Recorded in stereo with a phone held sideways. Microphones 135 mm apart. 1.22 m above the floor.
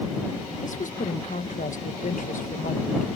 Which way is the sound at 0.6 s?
65° left (ahead or behind).